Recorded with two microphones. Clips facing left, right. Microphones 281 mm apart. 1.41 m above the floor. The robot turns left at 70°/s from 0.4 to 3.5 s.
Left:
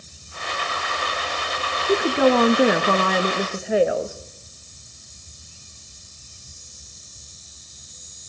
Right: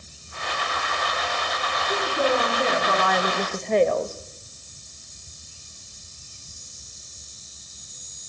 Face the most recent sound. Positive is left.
turn(degrees=10)